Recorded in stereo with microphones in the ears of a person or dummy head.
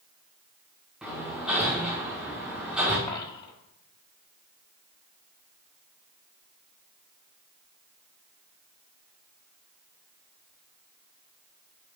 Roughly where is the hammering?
Centre.